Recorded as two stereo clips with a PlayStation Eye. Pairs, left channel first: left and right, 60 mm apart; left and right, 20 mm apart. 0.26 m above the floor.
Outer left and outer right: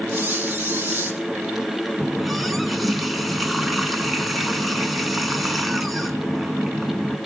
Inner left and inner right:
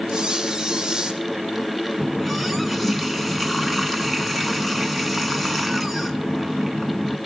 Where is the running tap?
Centre (ahead or behind), 1.7 m.